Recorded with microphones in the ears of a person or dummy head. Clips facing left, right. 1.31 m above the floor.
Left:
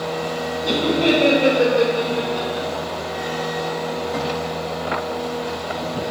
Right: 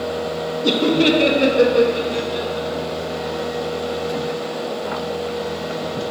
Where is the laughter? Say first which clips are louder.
Right 2 dB; 65° right (ahead or behind), 1.5 m; by 2.7 s 60° right (ahead or behind), 2.5 m.